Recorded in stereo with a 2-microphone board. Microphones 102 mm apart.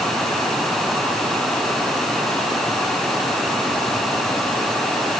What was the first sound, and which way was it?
Only background noise.